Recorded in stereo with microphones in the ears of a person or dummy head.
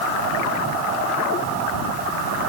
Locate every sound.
Only background noise.